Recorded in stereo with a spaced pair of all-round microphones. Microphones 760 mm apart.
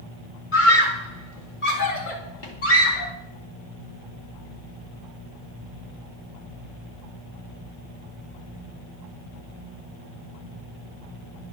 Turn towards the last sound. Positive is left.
turn(degrees=70)  # may be behind; listen again after turning